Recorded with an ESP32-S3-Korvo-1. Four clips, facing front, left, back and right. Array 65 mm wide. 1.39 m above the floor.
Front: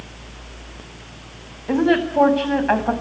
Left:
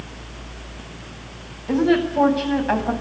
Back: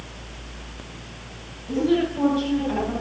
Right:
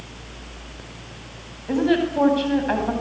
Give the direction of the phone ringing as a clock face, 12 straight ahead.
I don't hear a phone ringing.